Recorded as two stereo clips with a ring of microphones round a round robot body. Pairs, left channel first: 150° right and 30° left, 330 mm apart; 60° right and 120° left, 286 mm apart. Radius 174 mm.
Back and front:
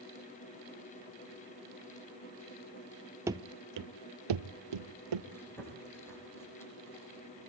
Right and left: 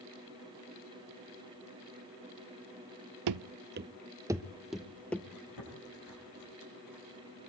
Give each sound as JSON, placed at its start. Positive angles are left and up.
{"t": 3.3, "sound": "running footsteps", "azimuth_deg": 115, "distance_m": 0.6}
{"t": 5.3, "sound": "chewing", "azimuth_deg": -65, "distance_m": 8.0}